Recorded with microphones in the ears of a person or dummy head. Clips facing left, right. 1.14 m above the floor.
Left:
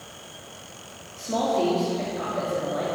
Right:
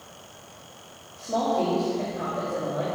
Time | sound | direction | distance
1.2 | a woman speaking | 15° left (ahead or behind) | 1.9 m